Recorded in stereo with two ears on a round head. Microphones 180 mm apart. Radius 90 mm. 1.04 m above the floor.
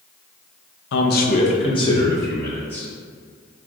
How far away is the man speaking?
About 0.5 m.